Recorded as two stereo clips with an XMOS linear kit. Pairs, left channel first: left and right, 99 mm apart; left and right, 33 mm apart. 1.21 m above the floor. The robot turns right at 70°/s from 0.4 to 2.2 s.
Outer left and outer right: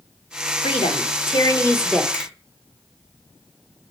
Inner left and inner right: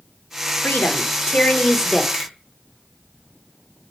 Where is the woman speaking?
80° left, 1.2 m; by 2.0 s straight behind, 1.2 m.